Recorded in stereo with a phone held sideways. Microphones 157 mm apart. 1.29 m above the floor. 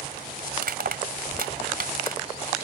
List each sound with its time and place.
0.6 s crushing: 70° right (ahead or behind)